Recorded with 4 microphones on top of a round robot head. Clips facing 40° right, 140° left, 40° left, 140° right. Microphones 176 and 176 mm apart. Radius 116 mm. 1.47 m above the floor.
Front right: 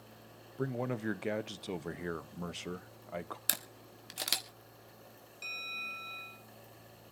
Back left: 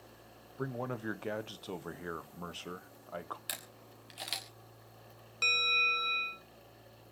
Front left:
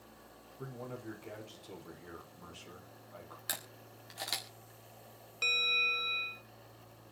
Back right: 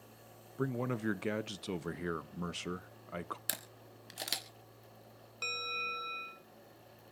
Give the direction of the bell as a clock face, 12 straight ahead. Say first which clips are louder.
Back left 13 dB, front left 2 dB; 8 o'clock.